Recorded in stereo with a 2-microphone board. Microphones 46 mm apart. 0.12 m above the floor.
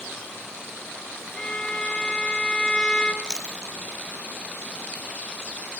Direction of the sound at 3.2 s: 15° left (ahead or behind).